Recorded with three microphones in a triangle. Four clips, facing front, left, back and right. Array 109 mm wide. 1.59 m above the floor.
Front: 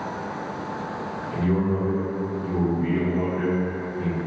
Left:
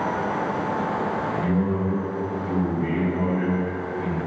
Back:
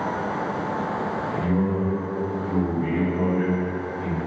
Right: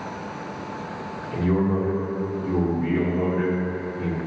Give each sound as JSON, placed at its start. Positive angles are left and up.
{"t": 1.3, "sound": "a man speaking", "azimuth_deg": -65, "distance_m": 2.0}